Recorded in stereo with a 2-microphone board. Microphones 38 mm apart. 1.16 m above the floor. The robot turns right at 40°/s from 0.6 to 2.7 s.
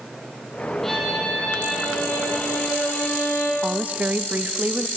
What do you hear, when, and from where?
0.8 s a violin: 5° left, 7.5 m; by 3.5 s 80° left, 7.5 m
3.6 s a woman speaking: 45° right (ahead or behind), 1.2 m